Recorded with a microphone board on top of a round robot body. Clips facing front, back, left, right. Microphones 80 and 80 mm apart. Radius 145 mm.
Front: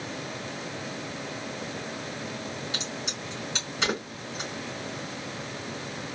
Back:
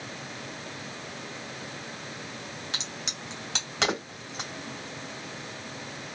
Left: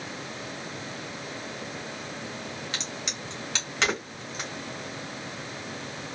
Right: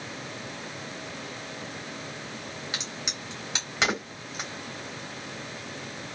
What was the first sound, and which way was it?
A crack, 170° right.